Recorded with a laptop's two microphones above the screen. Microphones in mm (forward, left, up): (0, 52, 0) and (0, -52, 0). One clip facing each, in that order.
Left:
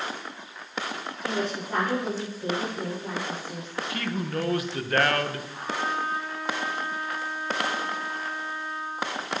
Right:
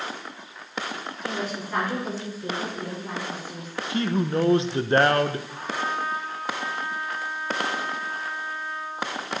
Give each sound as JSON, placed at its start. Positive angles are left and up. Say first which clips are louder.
{"t": 1.2, "sound": "a woman speaking", "louder": "left 2 dB", "side_deg": 30, "distance_m": 5.5}
{"t": 3.9, "sound": "a man speaking", "louder": "right 7 dB", "side_deg": -25, "distance_m": 0.6}
{"t": 5.5, "sound": "a trumpet", "louder": "right 1 dB", "side_deg": -85, "distance_m": 2.5}